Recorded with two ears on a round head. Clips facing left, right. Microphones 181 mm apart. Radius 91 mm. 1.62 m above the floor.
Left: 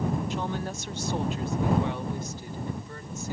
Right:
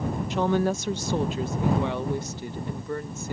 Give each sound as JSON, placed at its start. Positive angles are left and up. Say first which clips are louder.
{"t": 0.3, "sound": "a woman speaking", "louder": "right 8 dB", "side_deg": -55}